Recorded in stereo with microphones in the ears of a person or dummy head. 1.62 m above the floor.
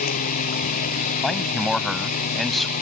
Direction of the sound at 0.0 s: 50° left (ahead or behind).